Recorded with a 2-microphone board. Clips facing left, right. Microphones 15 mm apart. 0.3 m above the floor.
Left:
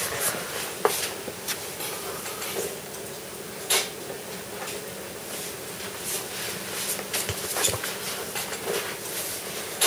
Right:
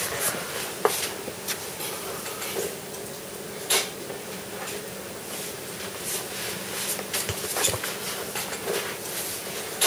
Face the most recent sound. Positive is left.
No sound to turn to.